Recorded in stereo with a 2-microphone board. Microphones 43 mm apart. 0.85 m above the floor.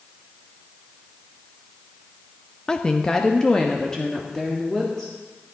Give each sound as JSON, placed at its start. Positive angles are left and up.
{"t": 2.7, "sound": "a woman speaking", "side_deg": 20, "distance_m": 0.6}